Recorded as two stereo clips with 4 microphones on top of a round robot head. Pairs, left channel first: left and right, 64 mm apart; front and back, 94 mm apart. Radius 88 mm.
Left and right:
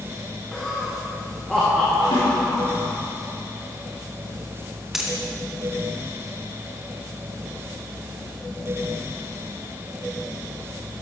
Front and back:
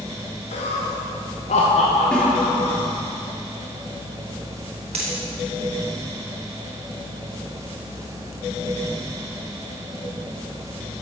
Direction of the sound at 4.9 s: 170° right.